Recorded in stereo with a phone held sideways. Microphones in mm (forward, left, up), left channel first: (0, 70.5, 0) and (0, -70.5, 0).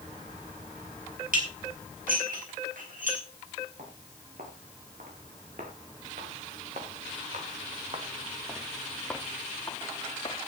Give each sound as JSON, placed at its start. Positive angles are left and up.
{"t": 1.3, "sound": "dishes clattering", "side_deg": -85, "distance_m": 4.5}
{"t": 3.8, "sound": "footsteps", "side_deg": -80, "distance_m": 6.5}